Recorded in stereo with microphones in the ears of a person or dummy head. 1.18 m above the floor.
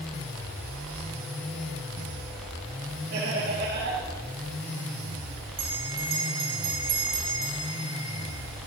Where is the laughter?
60° right (ahead or behind), 2.5 m.